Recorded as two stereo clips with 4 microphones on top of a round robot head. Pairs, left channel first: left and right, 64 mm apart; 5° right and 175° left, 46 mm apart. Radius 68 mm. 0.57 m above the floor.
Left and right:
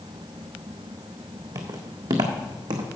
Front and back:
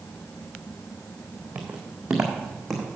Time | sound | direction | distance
1.6 | footsteps | 120° right | 1.6 m